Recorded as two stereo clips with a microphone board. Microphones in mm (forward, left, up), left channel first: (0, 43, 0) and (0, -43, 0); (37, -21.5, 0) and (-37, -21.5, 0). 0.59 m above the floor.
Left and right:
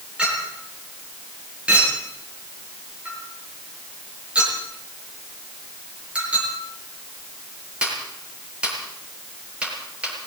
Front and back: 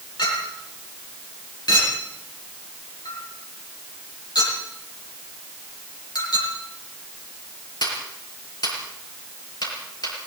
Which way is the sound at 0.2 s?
15° right.